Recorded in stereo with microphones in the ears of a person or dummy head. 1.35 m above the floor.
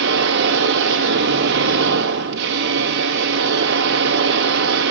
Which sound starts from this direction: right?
A machine running, at 0.0 s.